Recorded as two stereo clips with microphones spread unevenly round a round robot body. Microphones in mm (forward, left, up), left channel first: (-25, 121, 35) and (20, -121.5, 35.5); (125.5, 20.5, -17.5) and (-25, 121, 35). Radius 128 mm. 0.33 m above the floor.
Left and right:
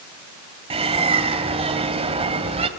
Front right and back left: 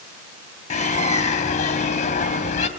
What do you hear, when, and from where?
0.7 s a bird: 15° right, 2.5 m